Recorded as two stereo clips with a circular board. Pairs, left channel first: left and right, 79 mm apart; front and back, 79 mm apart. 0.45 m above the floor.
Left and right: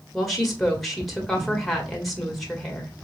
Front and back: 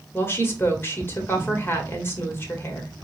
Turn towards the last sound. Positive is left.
turn(degrees=0)